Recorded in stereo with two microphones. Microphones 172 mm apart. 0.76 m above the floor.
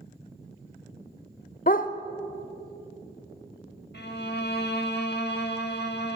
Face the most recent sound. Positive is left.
turn(degrees=70)  # may be behind; listen again after turning